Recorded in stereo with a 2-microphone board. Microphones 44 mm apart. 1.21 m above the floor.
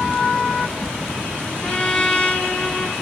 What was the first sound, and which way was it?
A trumpet, 30° left (ahead or behind).